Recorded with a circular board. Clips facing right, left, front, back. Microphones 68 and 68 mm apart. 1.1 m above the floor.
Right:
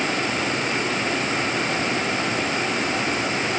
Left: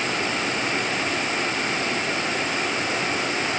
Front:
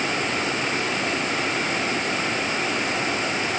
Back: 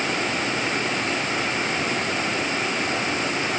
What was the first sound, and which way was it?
Only background noise.